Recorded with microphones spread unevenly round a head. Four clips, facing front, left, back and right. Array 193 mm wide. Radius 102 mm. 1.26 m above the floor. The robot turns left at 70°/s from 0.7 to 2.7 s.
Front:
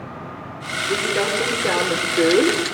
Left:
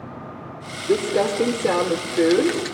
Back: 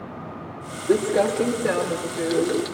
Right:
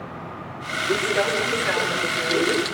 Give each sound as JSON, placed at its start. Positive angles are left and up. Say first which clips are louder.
{"t": 0.9, "sound": "crumpling", "louder": "left 3 dB, back 3 dB", "azimuth_deg": 140, "distance_m": 3.5}